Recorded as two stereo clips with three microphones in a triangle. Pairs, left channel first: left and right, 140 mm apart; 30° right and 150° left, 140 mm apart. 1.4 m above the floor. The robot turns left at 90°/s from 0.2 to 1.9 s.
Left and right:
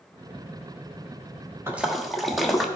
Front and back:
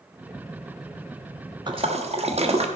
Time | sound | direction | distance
1.7 | a splash | 160° right | 1.2 m